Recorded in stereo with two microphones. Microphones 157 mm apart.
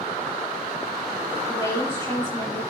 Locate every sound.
1.5 s a woman speaking: 15° left (ahead or behind), 5 m